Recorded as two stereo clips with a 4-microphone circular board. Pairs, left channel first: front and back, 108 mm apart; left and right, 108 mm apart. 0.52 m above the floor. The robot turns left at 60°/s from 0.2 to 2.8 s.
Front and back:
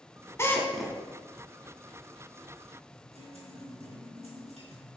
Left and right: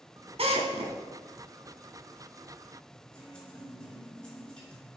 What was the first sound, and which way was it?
A drill, 65° right.